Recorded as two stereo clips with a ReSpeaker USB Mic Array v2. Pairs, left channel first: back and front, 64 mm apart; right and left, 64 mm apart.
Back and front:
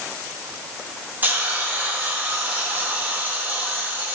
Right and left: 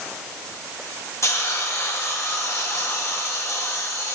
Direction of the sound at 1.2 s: 60° right.